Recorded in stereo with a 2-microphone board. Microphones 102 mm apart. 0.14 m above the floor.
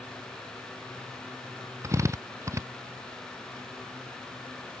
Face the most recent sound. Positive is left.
turn(degrees=-30)  # may be behind; listen again after turning